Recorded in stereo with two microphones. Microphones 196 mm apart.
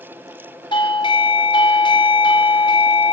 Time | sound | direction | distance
0.7 | a doorbell | 25° left (ahead or behind) | 1.2 m